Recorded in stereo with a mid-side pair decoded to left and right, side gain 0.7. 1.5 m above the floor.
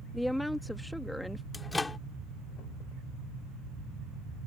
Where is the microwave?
15° left.